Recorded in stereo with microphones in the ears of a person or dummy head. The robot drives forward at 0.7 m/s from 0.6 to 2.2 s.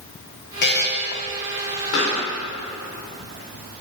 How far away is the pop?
About 3.5 m.